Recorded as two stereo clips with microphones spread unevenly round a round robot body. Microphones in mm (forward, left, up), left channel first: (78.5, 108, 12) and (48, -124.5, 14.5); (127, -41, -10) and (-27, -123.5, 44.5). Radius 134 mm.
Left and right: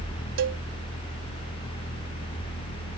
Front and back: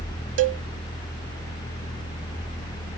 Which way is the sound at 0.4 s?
145° right.